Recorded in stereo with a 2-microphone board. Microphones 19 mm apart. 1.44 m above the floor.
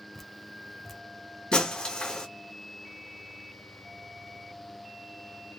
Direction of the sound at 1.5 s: 55° left (ahead or behind).